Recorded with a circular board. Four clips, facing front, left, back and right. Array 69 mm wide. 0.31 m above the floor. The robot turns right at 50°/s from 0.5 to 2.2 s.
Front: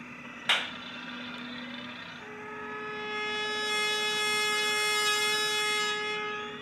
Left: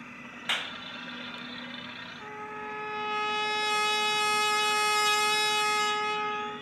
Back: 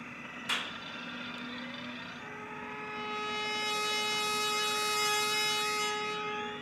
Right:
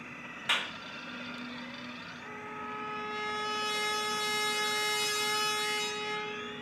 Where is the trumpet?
80° left, 2 m.